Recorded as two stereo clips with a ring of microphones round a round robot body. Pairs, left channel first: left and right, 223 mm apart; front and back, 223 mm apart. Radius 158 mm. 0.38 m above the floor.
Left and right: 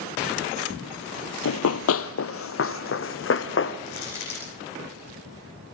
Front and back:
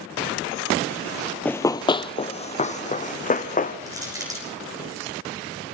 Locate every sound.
1.4 s running footsteps: 85° left, 0.7 m; by 3.8 s 55° left, 2 m
3.9 s crushing: 105° left, 7.5 m